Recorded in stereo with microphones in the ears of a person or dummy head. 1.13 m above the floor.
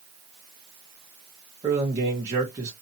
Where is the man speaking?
15° right (ahead or behind), 1.0 m.